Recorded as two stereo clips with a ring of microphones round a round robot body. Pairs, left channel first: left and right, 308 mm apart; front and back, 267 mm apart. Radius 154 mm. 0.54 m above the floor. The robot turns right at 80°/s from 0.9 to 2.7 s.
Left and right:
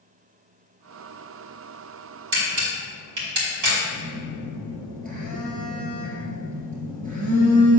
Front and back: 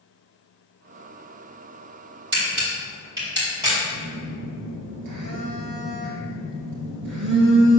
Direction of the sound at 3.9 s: 155° right.